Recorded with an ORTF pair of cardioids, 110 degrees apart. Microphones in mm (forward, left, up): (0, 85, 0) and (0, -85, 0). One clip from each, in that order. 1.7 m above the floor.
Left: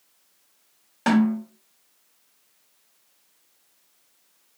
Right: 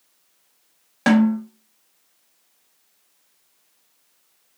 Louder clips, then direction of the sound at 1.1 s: Right 4 dB; 25° right.